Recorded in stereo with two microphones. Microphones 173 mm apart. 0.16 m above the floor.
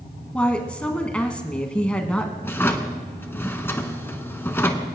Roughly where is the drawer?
Centre.